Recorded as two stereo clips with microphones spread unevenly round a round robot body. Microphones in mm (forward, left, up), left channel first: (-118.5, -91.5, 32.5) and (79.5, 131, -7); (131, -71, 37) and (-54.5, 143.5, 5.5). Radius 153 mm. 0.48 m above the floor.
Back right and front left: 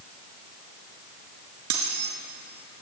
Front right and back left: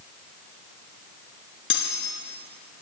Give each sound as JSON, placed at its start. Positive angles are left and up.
{"t": 1.7, "sound": "cutlery clinking", "azimuth_deg": 0, "distance_m": 3.5}